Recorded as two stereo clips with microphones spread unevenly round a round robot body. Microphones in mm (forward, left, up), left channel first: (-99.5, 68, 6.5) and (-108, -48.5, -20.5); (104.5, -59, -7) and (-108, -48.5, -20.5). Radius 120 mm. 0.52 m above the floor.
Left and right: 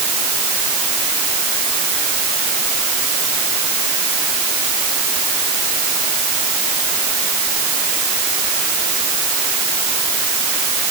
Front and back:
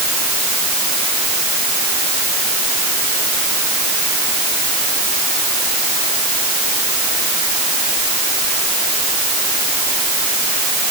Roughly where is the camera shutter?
No camera shutter in this recording.